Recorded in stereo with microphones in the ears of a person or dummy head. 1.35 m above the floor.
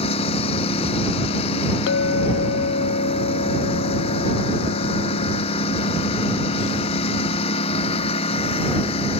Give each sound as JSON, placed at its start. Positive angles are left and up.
{"t": 0.0, "sound": "a lawn mower", "side_deg": 30}
{"t": 1.9, "sound": "a clink", "side_deg": 70}